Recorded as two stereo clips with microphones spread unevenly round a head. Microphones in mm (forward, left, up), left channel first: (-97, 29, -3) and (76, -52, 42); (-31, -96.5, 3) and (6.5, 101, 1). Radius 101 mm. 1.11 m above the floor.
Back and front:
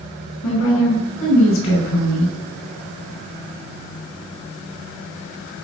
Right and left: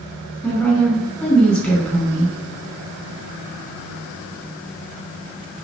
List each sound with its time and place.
0.4 s a woman speaking: 175° left, 5.5 m